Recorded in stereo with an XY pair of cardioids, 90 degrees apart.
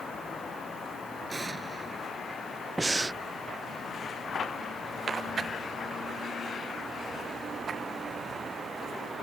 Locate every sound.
1.3 s an explosion: 30° right
2.8 s breathing: 25° right